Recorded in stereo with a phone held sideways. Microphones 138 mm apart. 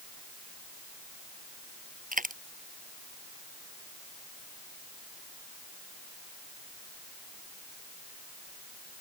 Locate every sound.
2.1 s a dropped coin: 85° right